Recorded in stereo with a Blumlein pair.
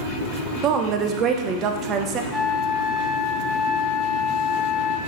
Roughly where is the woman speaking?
Ahead right.